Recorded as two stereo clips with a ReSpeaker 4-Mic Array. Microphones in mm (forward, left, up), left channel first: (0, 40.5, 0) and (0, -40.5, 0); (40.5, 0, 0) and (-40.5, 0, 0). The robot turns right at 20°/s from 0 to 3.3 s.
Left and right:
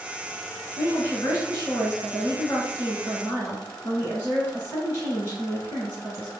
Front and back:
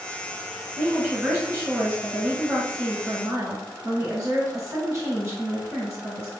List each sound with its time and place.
0.8 s a woman speaking: 95° left, 2.0 m; by 6.3 s 145° left, 2.0 m